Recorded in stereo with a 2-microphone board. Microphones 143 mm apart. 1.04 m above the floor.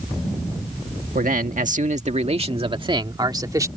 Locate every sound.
1.1 s a man speaking: 75° right (ahead or behind); by 3.7 s 25° right (ahead or behind)